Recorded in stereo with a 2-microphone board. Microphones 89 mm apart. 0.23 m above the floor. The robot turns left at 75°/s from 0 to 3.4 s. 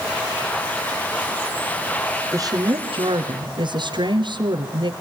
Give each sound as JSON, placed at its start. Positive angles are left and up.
{"t": 2.3, "sound": "a woman speaking", "azimuth_deg": -35, "distance_m": 3.0}